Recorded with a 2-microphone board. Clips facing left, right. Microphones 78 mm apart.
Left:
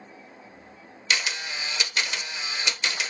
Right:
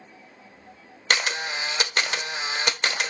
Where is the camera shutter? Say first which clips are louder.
Right 4 dB; 50° right (ahead or behind), 0.8 m.